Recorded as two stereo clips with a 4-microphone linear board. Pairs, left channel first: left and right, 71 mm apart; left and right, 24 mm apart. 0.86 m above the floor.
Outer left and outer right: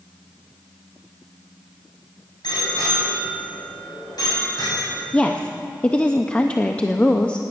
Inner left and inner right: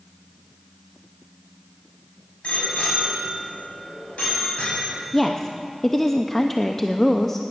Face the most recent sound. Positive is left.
turn(degrees=15)  # may be behind; listen again after turning